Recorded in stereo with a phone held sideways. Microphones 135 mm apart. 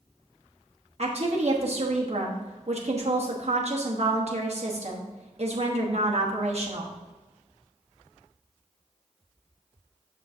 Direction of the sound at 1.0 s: 50° right (ahead or behind).